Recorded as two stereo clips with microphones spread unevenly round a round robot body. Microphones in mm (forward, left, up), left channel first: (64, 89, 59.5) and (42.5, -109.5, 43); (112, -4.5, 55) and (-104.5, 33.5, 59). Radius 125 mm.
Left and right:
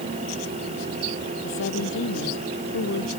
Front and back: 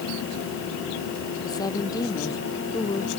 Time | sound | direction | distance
1.4 | a woman speaking | 65° left | ?